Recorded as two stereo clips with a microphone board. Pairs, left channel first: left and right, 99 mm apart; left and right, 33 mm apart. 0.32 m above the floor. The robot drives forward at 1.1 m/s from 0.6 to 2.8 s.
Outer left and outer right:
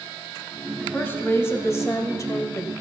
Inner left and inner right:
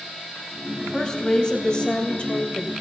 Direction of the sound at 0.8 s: 20° left (ahead or behind).